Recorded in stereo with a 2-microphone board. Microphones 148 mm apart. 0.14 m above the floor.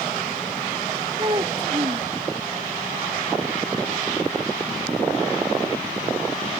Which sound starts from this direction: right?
A child speaking, at 1.2 s.